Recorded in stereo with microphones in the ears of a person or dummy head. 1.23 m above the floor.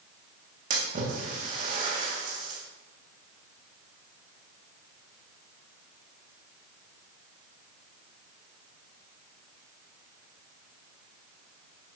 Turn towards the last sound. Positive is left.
turn(degrees=-35)  # may be behind; listen again after turning